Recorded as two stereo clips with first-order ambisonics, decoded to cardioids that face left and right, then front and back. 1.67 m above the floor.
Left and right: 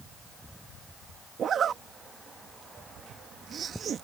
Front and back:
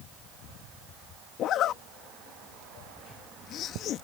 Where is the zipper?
35° right.